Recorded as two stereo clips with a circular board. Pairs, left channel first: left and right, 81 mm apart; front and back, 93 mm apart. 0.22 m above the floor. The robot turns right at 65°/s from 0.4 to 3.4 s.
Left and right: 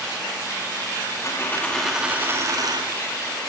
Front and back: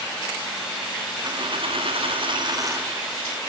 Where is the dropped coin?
140° left, 4.5 m; by 2.9 s 110° right, 4.5 m.